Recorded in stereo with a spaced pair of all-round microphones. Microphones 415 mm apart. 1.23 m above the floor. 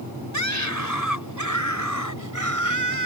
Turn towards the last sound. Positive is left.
turn(degrees=45)  # may be behind; listen again after turning